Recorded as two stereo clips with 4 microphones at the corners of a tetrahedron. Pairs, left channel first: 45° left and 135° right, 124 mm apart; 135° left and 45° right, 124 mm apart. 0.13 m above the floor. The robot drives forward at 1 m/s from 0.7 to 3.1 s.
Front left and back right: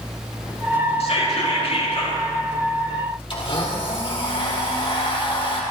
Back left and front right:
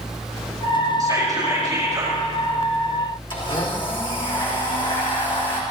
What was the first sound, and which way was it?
Whispering, 15° left.